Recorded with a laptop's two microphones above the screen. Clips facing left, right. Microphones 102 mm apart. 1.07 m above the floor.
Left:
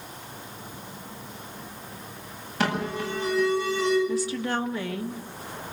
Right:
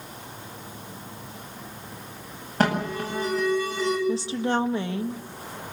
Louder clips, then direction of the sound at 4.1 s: Right 2 dB; 25° right (ahead or behind).